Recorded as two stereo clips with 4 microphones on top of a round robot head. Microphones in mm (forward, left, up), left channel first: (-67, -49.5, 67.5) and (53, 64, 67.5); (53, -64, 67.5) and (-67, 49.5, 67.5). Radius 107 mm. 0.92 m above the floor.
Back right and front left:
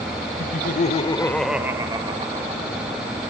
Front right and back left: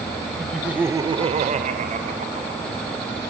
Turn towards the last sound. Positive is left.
turn(degrees=90)